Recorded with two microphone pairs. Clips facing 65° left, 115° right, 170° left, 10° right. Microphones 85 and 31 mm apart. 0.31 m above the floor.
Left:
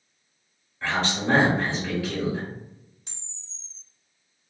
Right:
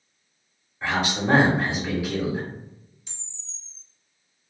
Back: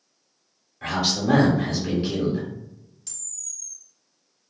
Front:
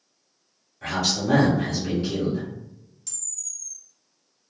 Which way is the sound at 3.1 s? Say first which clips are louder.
Even, front 2 dB; 85° left.